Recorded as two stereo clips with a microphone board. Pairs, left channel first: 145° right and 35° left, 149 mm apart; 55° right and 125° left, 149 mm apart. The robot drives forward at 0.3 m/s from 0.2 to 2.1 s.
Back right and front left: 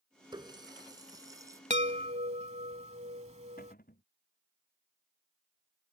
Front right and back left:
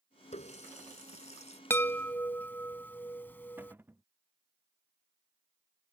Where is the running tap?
20° right; by 1.6 s 30° right.